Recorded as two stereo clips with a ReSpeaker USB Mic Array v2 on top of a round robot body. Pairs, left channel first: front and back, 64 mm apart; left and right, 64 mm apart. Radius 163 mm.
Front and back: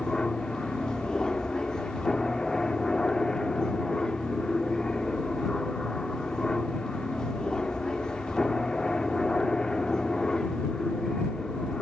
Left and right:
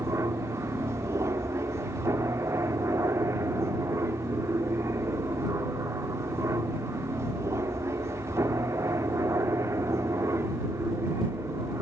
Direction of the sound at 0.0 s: 75° right.